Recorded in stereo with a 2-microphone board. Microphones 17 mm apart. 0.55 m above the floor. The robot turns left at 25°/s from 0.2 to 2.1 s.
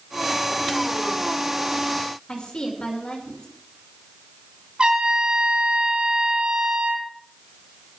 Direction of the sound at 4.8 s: 80° right.